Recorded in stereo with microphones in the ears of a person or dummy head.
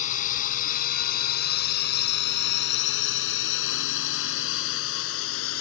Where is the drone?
45° left (ahead or behind); by 5.6 s 80° left.